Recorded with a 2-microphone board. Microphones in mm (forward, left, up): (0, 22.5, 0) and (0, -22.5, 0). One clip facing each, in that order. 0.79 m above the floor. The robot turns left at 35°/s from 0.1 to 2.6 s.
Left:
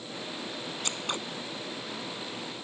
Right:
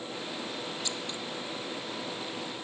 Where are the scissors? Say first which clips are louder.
Left 3 dB; 45° left (ahead or behind); by 1.2 s 60° left (ahead or behind).